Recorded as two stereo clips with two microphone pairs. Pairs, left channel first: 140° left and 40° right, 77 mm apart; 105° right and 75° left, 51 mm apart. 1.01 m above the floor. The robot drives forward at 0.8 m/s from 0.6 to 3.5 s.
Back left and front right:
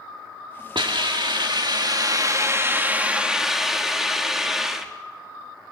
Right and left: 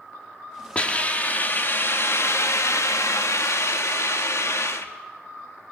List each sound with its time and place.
0.8 s a hiss: 45° right, 1.9 m; by 4.9 s 125° right, 1.5 m